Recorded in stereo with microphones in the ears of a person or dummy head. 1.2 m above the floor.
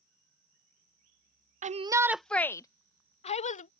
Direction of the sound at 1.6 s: 30° right (ahead or behind).